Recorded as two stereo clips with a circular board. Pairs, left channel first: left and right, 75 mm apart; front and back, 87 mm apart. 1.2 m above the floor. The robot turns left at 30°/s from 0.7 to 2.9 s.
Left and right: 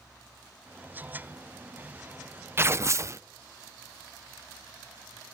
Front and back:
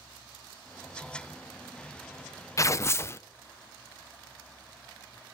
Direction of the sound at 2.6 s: 40° right.